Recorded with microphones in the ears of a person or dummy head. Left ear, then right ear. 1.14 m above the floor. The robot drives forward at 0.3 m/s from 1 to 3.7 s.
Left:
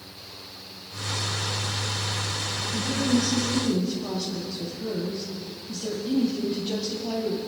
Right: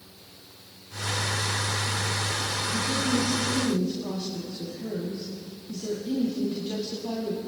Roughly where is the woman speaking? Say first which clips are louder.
Left 2 dB; centre.